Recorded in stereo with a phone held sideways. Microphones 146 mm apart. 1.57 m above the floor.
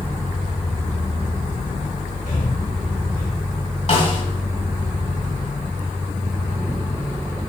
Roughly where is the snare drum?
Left.